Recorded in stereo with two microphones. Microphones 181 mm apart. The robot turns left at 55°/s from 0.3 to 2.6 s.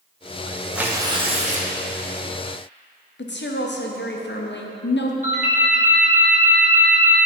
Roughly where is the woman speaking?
Left.